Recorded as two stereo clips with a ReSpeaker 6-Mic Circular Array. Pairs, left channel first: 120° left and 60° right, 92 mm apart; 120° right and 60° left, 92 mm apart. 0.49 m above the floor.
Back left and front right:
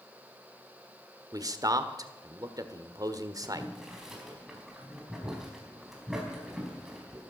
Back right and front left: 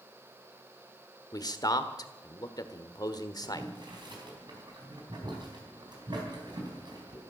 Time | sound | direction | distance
1.3 | a man speaking | 90° right | 1.3 m
3.4 | boiling | 25° left | 4 m